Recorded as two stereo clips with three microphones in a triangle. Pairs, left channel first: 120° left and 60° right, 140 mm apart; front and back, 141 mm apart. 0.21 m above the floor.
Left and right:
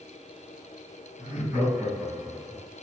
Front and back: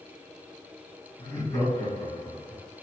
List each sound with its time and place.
1.2 s laughter: 50° right, 1.6 m